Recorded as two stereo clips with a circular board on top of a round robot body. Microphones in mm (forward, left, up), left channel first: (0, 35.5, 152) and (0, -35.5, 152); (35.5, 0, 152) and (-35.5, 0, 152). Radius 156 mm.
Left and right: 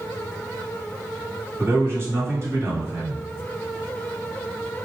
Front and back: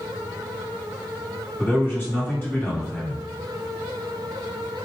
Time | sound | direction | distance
1.6 | a man speaking | 55° right | 1.9 m